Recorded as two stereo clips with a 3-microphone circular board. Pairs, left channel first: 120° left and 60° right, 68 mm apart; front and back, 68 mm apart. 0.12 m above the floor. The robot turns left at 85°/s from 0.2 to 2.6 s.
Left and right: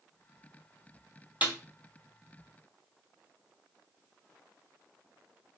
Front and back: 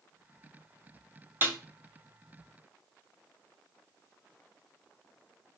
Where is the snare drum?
125° right, 0.8 m; by 1.6 s 135° right, 0.8 m.